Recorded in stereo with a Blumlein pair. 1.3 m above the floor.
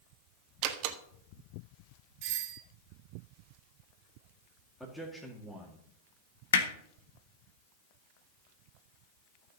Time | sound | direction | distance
0.6 | a door slam | 40° right | 1.3 m
2.2 | a doorbell | 40° right | 1.8 m
4.8 | a man speaking | straight ahead | 2.5 m
6.5 | hammering | 65° left | 1.5 m